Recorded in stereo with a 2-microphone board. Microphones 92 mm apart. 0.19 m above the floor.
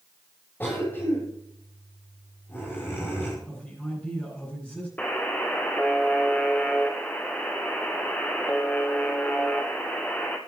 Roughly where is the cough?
Centre.